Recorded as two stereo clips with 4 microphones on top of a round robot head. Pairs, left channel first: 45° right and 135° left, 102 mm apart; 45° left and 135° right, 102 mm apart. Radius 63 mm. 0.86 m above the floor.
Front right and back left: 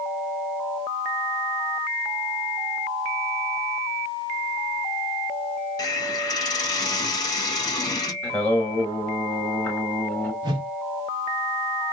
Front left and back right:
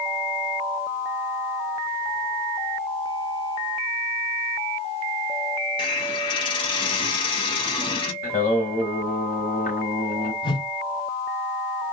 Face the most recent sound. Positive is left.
turn(degrees=90)